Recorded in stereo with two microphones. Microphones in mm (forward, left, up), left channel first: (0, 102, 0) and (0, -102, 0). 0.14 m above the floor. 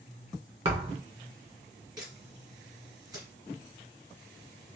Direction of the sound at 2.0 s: 20° right (ahead or behind).